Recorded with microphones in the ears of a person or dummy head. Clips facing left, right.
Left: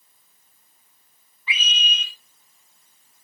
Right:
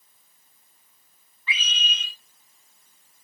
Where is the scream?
15° left (ahead or behind), 5 m.